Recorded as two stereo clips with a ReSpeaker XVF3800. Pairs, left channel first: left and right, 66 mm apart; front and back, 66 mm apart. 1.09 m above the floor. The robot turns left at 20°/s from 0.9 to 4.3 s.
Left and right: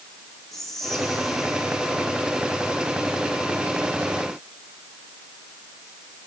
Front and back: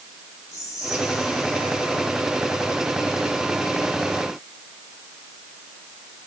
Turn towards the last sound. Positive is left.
turn(degrees=-65)